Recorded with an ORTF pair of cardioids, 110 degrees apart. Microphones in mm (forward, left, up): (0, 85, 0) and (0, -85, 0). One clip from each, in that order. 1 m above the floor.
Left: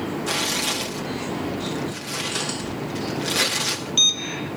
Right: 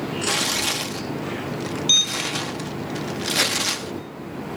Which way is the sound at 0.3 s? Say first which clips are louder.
Right 2 dB; 20° right.